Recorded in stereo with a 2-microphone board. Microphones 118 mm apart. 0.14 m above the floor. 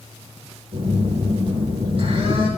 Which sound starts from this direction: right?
A phone buzzing, at 0.7 s.